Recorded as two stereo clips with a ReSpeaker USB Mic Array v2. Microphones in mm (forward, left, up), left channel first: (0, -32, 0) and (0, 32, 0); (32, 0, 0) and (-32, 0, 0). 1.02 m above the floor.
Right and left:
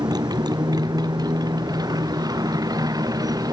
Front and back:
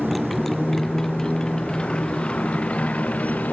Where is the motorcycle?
90° left; by 3.5 s 70° left.